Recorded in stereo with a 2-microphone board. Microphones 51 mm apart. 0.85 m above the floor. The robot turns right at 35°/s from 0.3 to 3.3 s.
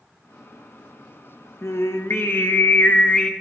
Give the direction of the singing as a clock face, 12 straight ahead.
9 o'clock.